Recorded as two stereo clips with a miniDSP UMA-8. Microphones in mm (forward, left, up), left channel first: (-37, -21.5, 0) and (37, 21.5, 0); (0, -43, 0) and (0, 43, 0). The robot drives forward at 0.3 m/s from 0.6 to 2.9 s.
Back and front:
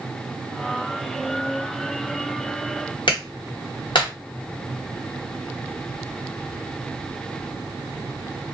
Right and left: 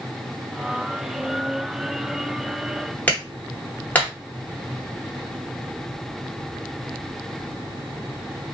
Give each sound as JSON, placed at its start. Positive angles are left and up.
{"t": 3.1, "sound": "a clap", "azimuth_deg": -160, "distance_m": 1.2}